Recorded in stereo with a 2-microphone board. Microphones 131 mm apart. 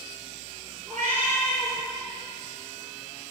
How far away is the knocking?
No knocking in this recording.